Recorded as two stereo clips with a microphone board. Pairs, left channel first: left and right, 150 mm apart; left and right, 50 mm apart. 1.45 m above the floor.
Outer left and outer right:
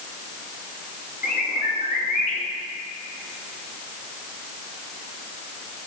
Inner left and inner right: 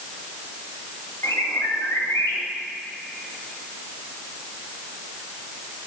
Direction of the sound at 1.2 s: 85° left.